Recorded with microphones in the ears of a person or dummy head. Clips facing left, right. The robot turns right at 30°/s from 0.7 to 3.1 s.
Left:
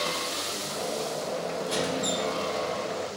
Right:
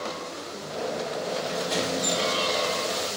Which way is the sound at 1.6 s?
40° right (ahead or behind).